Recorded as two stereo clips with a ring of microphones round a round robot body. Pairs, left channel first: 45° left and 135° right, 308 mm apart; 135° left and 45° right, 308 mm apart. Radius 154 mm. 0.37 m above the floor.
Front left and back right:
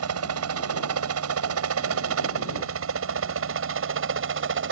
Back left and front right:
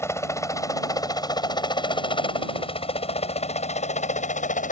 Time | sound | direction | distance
0.0 | a helicopter | 145° right | ?